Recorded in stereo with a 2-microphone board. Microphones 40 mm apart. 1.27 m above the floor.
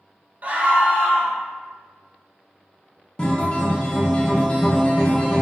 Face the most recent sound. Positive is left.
turn(degrees=25)  # may be behind; listen again after turning